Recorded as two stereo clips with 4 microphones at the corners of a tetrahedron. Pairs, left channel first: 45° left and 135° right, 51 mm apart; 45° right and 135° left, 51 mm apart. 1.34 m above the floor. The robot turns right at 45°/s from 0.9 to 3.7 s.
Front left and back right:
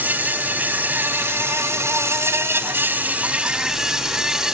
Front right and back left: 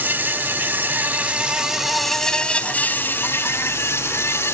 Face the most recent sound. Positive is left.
turn(degrees=-55)